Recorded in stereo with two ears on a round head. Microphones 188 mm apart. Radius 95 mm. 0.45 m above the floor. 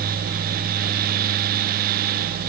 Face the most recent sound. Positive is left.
No sound to turn to.